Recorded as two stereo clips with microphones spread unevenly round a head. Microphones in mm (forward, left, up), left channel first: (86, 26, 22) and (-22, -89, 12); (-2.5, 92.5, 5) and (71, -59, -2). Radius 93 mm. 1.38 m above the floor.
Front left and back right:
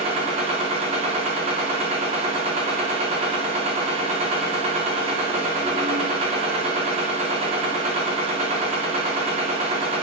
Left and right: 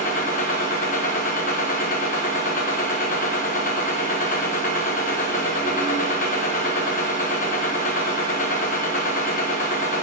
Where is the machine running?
170° left, 1.1 m.